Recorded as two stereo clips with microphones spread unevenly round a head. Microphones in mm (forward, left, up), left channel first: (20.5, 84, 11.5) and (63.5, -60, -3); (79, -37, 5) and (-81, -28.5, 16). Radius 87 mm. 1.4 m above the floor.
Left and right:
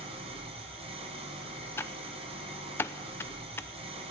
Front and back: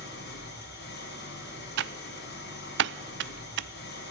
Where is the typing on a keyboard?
175° right, 0.6 m.